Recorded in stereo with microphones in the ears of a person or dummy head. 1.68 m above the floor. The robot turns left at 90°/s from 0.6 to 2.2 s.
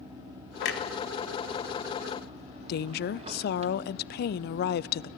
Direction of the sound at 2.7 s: 60° left (ahead or behind).